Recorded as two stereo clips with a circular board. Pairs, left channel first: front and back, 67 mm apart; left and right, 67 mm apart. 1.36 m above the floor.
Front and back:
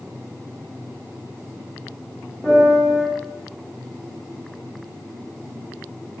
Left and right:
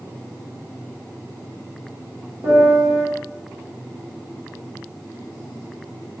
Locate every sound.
2.4 s a piano: 80° right, 1.3 m